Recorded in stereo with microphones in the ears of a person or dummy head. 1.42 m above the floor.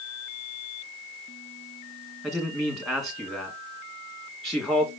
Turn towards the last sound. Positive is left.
turn(degrees=10)  # may be behind; listen again after turning